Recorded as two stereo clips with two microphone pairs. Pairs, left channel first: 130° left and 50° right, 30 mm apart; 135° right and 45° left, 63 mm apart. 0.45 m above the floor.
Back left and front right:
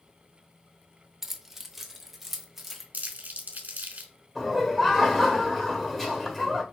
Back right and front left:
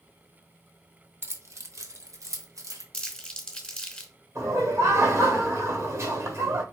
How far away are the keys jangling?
About 0.6 m.